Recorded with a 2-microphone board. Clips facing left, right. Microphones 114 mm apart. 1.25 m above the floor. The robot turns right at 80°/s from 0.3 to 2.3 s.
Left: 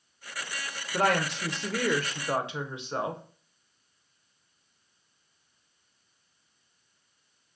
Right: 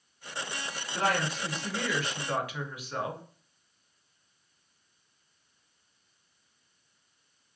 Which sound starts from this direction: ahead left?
A woman speaking, at 0.9 s.